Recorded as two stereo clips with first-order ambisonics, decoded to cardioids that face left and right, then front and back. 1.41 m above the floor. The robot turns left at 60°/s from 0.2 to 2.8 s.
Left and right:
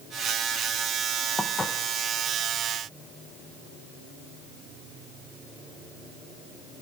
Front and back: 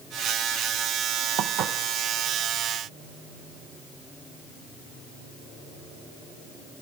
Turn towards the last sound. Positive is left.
turn(degrees=95)